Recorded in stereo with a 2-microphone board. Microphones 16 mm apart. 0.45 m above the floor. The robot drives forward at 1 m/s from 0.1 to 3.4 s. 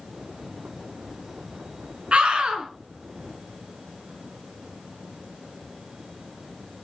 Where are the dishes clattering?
I don't hear dishes clattering.